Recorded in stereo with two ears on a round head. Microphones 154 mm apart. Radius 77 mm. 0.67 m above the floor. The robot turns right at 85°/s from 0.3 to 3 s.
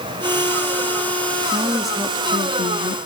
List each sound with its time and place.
1.5 s a woman speaking: 30° right, 0.8 m; by 3.0 s 95° left, 0.8 m